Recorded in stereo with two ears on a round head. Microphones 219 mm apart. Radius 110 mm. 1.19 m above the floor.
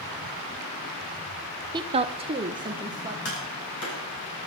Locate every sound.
1.7 s a woman speaking: 15° right (ahead or behind), 0.6 m
3.2 s tapping: 60° left (ahead or behind), 5 m